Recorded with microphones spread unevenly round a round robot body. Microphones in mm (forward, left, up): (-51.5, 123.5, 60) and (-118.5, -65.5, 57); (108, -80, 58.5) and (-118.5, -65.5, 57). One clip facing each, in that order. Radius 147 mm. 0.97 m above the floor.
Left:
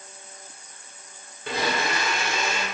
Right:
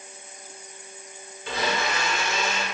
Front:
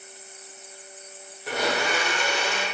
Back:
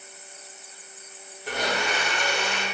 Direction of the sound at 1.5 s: 85° left.